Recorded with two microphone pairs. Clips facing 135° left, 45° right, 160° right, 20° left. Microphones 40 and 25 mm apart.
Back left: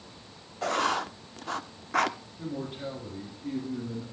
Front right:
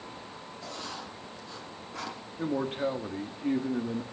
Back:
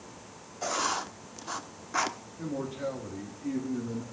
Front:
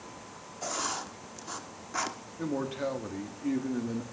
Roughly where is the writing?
Behind left.